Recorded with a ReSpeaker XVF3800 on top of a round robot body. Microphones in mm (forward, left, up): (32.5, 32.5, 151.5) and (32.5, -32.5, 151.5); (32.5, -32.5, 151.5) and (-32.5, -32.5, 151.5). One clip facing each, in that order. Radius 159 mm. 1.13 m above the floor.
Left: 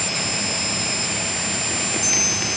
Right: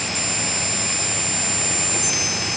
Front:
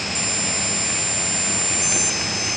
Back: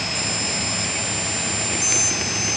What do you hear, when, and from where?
Only background noise.